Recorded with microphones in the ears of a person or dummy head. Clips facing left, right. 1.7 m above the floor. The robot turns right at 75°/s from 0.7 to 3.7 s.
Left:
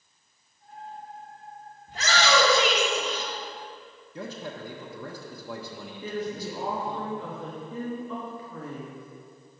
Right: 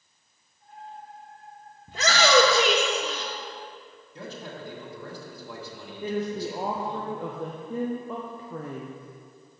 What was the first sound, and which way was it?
A shout, 80° right.